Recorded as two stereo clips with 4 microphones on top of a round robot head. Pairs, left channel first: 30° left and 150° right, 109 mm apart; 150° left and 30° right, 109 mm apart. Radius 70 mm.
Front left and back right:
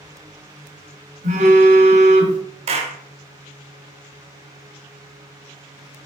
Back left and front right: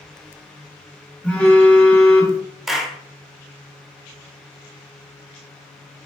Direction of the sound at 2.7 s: 120° right.